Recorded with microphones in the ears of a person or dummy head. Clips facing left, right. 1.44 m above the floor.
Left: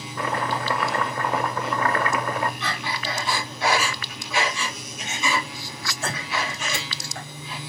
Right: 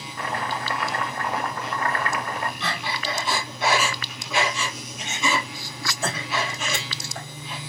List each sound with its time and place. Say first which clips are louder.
0.2 s chopping: left 3 dB; 65° left (ahead or behind), 0.9 m
2.6 s breathing: even; 80° right, 3.5 m